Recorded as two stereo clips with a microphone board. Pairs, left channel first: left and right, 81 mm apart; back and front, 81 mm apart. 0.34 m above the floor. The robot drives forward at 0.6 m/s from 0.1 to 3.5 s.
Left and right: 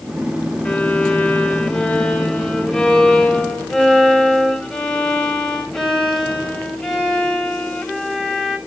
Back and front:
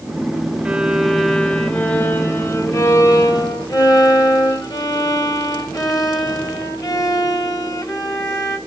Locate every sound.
0.7 s a violin: 45° left, 1.3 m; by 8.6 s 170° left, 1.9 m